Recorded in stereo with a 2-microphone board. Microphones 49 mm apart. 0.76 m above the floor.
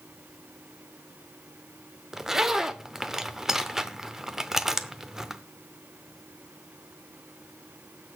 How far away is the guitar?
I don't hear a guitar.